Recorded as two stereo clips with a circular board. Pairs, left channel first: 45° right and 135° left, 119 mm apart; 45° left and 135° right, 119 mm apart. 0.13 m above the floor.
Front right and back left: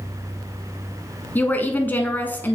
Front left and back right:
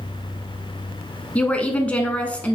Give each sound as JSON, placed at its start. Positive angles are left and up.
{"t": 1.4, "sound": "a woman speaking", "azimuth_deg": -10, "distance_m": 1.1}